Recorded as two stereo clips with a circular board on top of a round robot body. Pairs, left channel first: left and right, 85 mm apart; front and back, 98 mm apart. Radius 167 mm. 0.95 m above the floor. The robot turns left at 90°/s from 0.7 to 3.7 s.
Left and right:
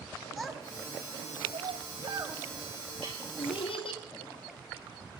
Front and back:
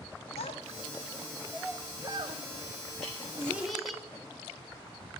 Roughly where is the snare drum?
Right.